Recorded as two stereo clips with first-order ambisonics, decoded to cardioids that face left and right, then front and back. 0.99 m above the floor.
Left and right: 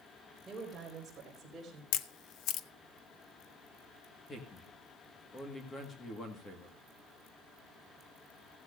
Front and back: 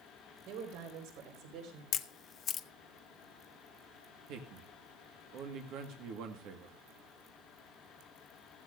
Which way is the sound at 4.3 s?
160° left.